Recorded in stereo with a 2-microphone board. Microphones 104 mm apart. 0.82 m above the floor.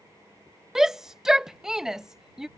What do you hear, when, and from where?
0.8 s a shout: 5° right (ahead or behind)